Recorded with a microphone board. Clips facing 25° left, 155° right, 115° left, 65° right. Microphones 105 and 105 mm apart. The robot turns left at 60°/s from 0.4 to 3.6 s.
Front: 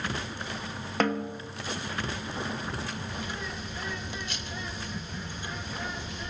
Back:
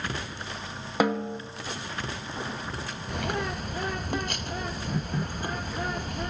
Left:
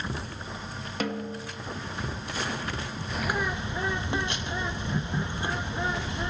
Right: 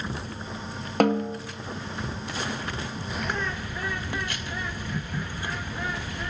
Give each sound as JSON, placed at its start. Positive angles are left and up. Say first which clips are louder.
{"t": 1.0, "sound": "a snare drum", "louder": "back 3 dB, right 10 dB", "azimuth_deg": -80, "distance_m": 0.9}
{"t": 3.1, "sound": "a bird", "louder": "back 6 dB, left 2 dB", "azimuth_deg": -150, "distance_m": 0.7}